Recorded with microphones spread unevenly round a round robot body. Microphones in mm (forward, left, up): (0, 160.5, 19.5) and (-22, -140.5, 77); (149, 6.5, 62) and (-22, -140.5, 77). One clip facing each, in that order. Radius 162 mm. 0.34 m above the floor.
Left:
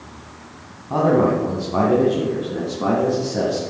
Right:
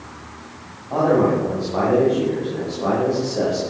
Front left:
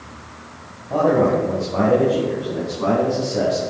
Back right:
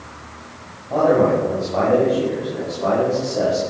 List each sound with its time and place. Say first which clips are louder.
0.9 s a man speaking: even, back right 1 dB; 130° left, 3 m; by 3.6 s 75° left, 5 m